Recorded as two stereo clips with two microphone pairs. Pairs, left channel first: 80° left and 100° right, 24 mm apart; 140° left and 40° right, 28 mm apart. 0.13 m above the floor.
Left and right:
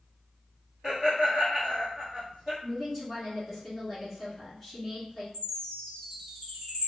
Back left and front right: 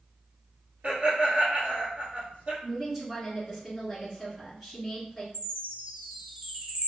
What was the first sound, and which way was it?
Laughter, 20° right.